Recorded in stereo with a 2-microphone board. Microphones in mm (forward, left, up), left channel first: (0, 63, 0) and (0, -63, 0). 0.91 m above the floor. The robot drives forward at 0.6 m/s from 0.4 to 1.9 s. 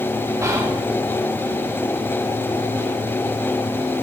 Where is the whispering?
25° right (ahead or behind), 0.8 m; by 0.9 s 20° right (ahead or behind), 0.9 m.